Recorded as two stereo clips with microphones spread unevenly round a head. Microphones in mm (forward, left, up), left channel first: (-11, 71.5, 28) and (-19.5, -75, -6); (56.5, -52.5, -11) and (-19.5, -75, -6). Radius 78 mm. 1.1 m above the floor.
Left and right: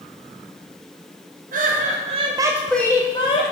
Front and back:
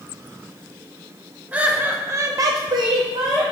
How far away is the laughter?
About 1.4 m.